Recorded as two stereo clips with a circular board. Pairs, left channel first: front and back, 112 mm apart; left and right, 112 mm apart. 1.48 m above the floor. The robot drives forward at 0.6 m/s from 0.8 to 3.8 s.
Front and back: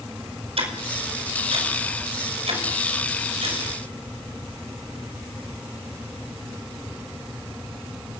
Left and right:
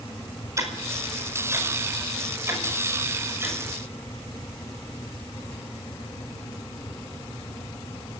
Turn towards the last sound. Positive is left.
turn(degrees=-160)